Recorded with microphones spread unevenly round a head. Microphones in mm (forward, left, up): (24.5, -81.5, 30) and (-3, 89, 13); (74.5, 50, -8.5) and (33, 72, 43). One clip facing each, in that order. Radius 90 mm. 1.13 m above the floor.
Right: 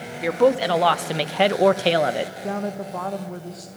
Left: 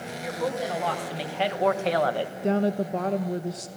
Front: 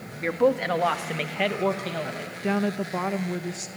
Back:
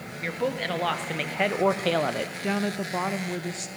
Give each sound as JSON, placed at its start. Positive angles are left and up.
{"t": 0.2, "sound": "a woman speaking", "azimuth_deg": -70, "distance_m": 2.5}
{"t": 2.4, "sound": "a woman speaking", "azimuth_deg": 45, "distance_m": 1.2}